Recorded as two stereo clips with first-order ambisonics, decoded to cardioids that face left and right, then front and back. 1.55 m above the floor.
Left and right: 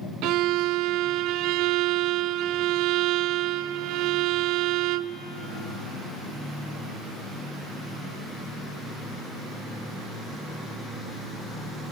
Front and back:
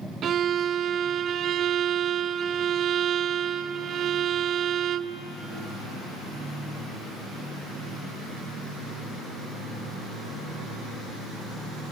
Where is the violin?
120° right, 0.5 m.